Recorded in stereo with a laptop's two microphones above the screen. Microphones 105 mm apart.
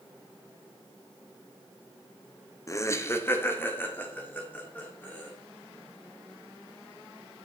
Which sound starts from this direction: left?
Laughter, at 2.7 s.